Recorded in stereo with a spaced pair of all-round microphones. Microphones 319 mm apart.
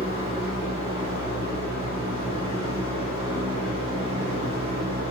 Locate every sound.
0.0 s a fan: 40° right (ahead or behind), 1.6 m